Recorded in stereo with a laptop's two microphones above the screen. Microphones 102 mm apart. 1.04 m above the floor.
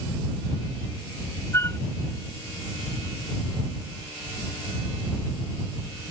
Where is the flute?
25° left (ahead or behind).